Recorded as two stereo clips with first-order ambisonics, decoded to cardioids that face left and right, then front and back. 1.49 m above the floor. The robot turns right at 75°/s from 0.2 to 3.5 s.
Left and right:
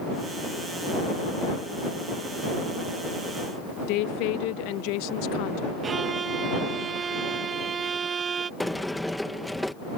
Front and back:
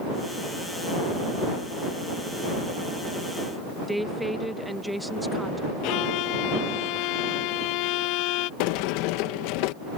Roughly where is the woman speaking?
Left.